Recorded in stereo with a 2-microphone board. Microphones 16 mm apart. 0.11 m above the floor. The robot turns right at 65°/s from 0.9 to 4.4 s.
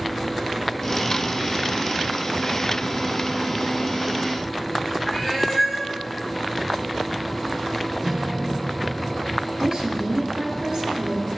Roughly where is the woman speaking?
Right.